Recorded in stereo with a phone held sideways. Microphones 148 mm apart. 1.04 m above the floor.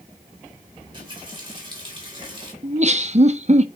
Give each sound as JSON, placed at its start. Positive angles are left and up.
{"t": 0.8, "sound": "a running tap", "side_deg": -35, "distance_m": 3.5}
{"t": 2.6, "sound": "laughter", "side_deg": -50, "distance_m": 0.9}